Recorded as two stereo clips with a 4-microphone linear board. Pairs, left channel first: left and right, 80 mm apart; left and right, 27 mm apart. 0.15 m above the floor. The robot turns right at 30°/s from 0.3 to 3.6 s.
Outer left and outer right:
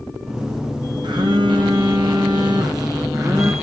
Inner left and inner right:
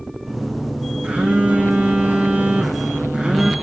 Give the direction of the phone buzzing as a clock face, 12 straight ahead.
4 o'clock.